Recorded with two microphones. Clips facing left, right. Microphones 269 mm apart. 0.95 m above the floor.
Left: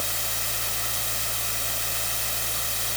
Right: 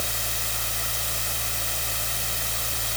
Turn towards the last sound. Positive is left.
No sound to turn to.